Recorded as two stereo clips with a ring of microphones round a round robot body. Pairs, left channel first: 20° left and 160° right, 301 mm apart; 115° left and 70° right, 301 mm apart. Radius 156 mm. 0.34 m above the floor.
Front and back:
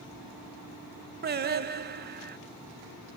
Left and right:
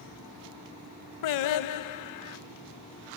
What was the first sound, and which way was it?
Singing, 140° left.